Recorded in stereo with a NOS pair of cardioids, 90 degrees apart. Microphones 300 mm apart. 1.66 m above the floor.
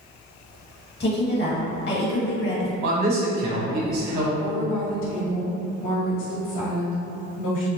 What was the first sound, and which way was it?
A woman speaking, 35° left.